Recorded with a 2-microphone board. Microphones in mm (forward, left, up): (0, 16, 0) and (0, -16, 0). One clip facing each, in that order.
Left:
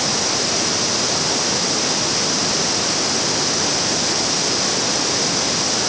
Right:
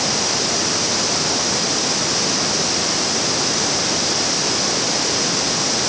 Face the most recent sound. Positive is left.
No sound to turn to.